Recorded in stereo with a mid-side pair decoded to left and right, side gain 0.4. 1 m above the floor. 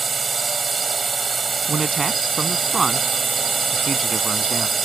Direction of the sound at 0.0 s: 50° right.